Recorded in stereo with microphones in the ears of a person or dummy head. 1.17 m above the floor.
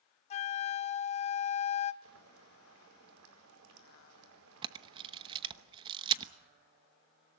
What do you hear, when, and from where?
0.3 s a flute: 35° left (ahead or behind), 0.7 m
2.0 s boiling: 80° right, 4.5 m
4.6 s a camera shutter: 30° right (ahead or behind), 1.0 m